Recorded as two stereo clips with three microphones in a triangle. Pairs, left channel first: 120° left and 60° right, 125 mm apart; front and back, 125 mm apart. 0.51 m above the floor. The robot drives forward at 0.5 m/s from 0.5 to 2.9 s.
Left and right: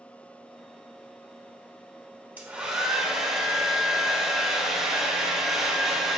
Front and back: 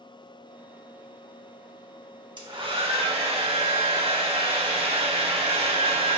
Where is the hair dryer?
135° right, 0.9 m; by 6.2 s 145° right, 1.1 m.